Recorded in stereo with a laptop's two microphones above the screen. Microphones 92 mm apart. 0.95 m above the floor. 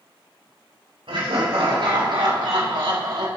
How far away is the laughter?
About 3 m.